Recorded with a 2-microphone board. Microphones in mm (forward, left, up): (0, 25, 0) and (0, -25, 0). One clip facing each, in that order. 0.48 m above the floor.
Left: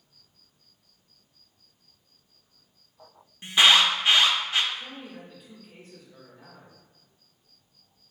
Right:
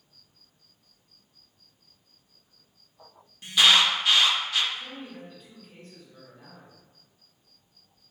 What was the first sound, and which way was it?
An alarm, 25° left (ahead or behind).